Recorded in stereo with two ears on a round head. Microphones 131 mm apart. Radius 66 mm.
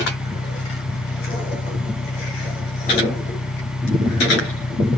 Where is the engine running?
75° left (ahead or behind).